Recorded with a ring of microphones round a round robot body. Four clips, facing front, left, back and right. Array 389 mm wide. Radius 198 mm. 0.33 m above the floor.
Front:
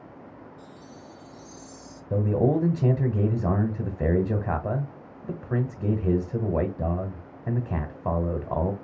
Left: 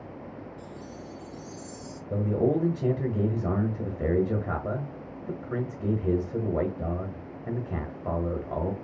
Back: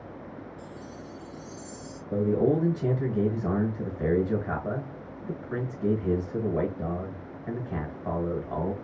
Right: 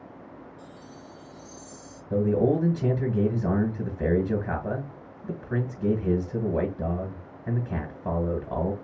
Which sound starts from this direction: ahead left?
A chime, at 0.6 s.